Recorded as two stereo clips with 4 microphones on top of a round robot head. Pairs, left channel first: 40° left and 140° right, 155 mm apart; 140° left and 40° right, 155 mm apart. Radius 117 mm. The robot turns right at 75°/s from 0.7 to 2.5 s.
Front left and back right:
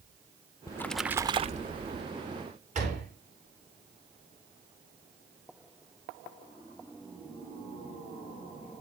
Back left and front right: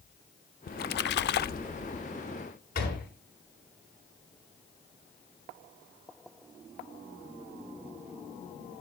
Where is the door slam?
175° left, 8.5 m.